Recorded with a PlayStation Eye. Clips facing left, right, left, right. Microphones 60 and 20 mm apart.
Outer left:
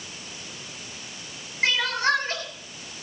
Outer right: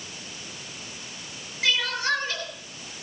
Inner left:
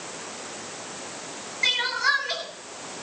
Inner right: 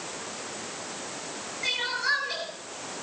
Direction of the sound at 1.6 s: 40° left (ahead or behind).